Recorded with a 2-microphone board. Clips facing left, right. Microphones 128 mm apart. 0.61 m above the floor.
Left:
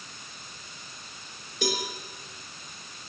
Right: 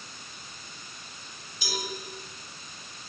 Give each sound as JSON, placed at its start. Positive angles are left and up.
{"t": 1.6, "sound": "a cowbell", "side_deg": 60, "distance_m": 8.5}